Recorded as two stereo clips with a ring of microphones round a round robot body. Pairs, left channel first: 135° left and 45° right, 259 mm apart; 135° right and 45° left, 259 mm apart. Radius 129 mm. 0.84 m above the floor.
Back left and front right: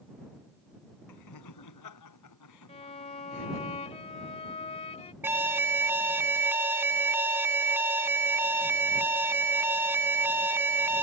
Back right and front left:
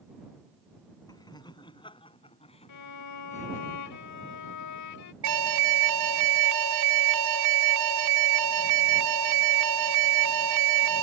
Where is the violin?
160° right.